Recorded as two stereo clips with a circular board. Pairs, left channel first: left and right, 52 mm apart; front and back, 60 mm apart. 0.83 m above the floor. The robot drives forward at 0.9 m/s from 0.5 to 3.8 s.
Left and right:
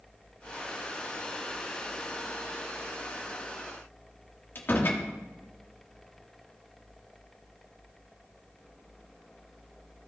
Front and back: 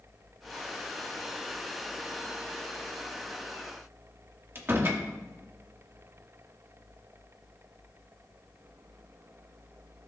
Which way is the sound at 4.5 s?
135° left.